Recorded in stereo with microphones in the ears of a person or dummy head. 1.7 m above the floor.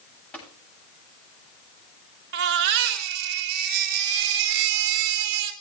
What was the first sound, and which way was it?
Tapping, 5° left (ahead or behind).